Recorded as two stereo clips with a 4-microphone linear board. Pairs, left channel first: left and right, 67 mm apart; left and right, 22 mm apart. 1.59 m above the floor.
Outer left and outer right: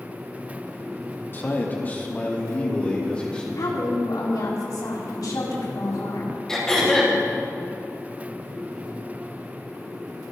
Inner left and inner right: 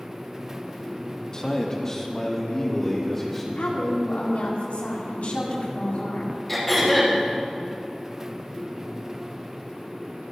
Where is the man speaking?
35° left (ahead or behind), 2.5 m; by 3.5 s 15° left (ahead or behind), 4 m.